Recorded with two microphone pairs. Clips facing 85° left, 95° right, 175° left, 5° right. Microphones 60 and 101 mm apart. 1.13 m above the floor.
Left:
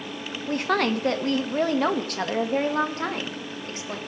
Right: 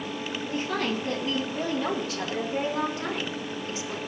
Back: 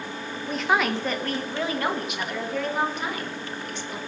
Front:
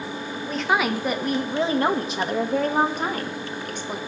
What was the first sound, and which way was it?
A woman speaking, 90° left.